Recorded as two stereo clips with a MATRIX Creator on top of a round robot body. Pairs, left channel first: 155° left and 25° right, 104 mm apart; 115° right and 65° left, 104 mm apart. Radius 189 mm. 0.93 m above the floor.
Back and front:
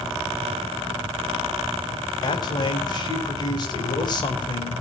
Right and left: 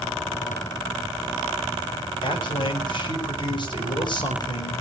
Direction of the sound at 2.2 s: 155° right.